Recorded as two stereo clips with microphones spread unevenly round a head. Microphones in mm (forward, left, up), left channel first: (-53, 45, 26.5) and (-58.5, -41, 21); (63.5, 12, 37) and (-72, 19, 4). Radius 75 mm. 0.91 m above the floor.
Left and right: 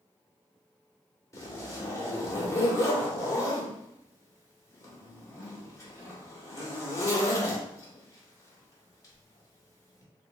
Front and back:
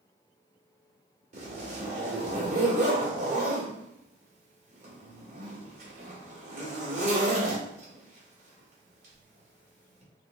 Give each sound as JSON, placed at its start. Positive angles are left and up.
{"t": 1.3, "sound": "a zipper", "azimuth_deg": 140, "distance_m": 1.7}